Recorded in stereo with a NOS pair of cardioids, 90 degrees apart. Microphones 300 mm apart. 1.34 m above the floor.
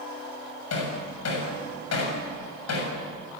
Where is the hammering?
60° left, 7.5 m.